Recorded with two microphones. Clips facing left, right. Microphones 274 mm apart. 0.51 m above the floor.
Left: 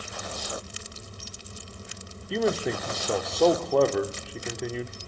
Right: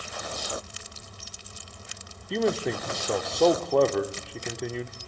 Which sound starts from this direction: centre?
A man speaking, at 2.3 s.